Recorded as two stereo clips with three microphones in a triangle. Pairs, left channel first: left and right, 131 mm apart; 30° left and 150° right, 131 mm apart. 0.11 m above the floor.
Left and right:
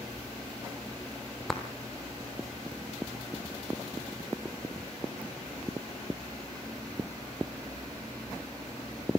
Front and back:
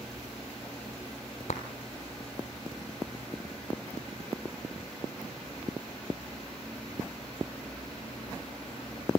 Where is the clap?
5° left, 2 m.